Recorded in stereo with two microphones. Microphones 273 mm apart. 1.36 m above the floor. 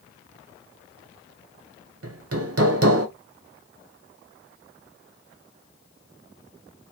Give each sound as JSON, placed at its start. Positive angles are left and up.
{"t": 2.0, "sound": "hammering", "side_deg": -60, "distance_m": 0.5}